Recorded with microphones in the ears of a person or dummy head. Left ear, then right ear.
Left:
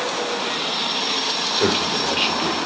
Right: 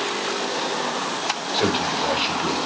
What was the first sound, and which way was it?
A man speaking, 10° left (ahead or behind).